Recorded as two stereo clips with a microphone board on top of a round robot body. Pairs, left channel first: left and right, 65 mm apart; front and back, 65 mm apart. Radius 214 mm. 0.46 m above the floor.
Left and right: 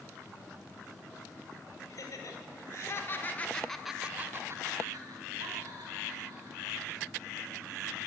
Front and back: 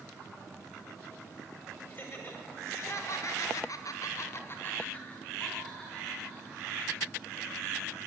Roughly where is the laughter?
Ahead left.